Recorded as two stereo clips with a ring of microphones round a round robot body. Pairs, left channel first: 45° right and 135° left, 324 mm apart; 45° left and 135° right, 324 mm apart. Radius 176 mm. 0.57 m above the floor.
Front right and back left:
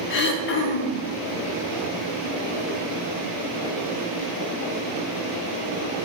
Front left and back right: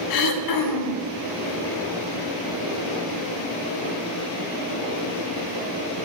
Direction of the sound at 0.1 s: 15° left.